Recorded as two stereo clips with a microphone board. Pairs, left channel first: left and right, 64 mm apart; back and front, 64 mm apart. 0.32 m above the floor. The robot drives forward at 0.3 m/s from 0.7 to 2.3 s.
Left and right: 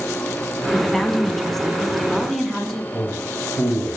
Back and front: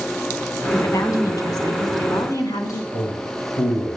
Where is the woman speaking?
175° left, 2 m.